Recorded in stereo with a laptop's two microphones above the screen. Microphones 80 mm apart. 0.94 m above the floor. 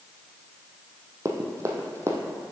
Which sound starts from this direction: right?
Running footsteps, at 1.2 s.